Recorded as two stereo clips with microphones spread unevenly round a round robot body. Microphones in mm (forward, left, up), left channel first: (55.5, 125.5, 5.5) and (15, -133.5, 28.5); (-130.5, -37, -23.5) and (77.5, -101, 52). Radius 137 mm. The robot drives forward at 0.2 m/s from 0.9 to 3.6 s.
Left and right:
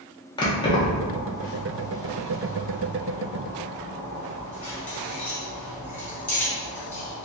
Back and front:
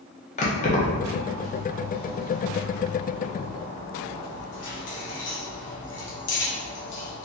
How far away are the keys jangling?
About 0.7 m.